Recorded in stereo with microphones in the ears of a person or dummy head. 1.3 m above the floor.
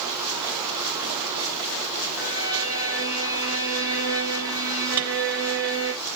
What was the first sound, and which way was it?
A violin, 15° right (ahead or behind).